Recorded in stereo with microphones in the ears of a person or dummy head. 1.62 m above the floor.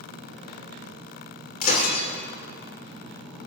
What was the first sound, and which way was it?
Breaking glass, 45° left (ahead or behind).